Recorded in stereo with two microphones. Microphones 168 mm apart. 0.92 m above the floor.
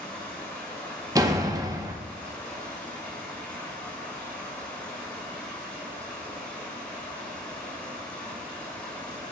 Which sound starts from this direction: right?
A door slam, at 1.1 s.